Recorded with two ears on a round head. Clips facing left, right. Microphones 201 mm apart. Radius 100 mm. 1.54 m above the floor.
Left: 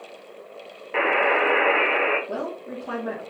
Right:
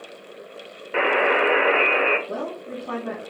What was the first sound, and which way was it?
A buzzer, 10° right (ahead or behind).